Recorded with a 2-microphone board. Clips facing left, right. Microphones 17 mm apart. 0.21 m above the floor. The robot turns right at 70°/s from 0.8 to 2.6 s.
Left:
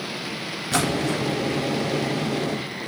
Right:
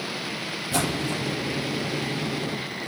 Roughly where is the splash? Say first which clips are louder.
Left 4 dB; left.